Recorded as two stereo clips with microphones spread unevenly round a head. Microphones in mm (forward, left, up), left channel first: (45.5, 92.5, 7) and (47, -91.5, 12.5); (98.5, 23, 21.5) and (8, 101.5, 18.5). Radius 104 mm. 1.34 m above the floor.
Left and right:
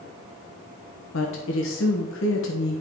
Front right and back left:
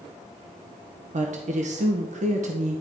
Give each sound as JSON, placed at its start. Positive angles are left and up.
{"t": 1.1, "sound": "a woman speaking", "azimuth_deg": 120, "distance_m": 1.1}